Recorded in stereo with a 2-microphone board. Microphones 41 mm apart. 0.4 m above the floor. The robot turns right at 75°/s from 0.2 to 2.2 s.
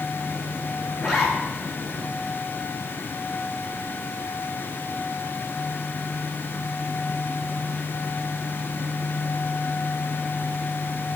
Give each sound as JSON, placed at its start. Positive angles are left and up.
{"t": 1.0, "sound": "a zipper", "azimuth_deg": 0, "distance_m": 2.5}